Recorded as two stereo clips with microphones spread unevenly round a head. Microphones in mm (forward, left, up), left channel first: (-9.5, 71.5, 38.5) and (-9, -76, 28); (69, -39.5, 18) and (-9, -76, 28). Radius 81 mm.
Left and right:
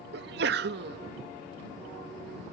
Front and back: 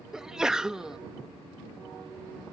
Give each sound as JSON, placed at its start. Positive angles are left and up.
{"t": 0.1, "sound": "a sneeze", "azimuth_deg": -70}